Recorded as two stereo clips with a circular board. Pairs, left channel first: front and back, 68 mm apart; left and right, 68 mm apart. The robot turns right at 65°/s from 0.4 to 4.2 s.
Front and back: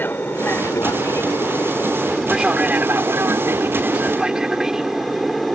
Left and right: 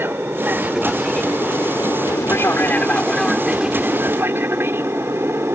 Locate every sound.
0.0 s an aircraft: 45° right; by 5.5 s 90° right